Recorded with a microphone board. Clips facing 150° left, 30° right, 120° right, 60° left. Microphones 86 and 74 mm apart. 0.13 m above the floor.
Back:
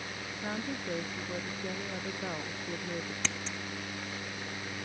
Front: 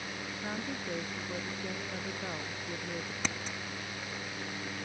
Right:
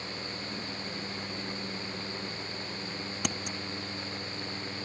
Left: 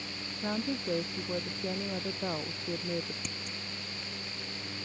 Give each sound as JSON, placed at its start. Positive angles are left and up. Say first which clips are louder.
{"t": 0.4, "sound": "a woman speaking", "louder": "back 2 dB, left 6 dB", "azimuth_deg": 70}
{"t": 3.2, "sound": "scissors", "louder": "front 1 dB, right 7 dB", "azimuth_deg": -110}